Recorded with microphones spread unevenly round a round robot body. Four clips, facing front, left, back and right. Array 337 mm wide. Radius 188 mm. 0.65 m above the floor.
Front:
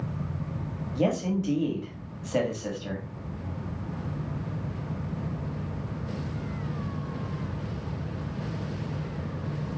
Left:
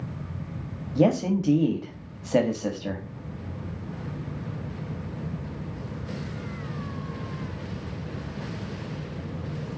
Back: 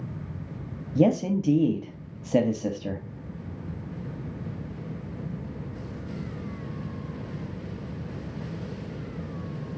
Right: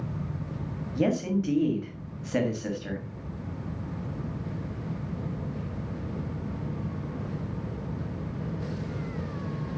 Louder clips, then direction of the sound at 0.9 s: Left 4 dB, back 4 dB; 160° left.